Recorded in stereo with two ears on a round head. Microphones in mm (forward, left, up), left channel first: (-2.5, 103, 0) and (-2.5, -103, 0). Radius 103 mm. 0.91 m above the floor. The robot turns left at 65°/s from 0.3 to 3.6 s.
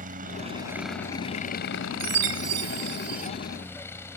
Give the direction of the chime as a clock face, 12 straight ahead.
1 o'clock.